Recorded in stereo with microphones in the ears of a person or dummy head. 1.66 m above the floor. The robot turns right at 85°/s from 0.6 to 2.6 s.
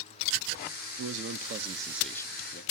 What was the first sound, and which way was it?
A man speaking, 90° right.